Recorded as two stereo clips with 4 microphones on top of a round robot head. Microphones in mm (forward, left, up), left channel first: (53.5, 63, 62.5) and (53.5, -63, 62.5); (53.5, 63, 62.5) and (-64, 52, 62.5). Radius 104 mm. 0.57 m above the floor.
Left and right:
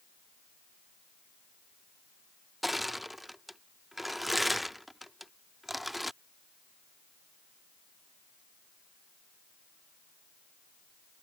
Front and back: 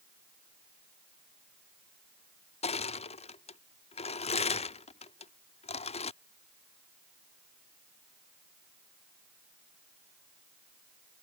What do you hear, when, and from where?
2.6 s crushing: straight ahead